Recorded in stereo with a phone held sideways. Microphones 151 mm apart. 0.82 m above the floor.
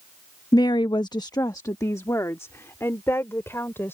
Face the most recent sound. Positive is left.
turn(degrees=15)  # may be behind; listen again after turning